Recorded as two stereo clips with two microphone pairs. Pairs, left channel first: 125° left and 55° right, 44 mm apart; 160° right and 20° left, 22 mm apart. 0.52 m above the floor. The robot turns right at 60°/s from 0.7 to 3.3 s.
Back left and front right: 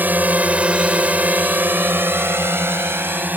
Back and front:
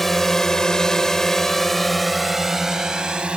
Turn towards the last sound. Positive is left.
turn(degrees=-15)